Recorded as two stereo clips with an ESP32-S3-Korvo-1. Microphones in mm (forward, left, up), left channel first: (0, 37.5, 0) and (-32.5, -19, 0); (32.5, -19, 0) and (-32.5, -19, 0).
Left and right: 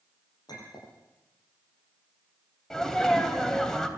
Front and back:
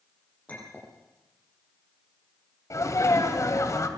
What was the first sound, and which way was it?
A clink, 70° left.